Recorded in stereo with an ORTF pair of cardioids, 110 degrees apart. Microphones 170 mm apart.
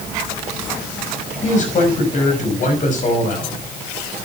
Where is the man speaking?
45° left, 5.5 m.